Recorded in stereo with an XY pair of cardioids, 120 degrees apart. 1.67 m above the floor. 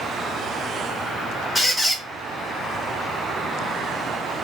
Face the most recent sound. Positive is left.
turn(degrees=0)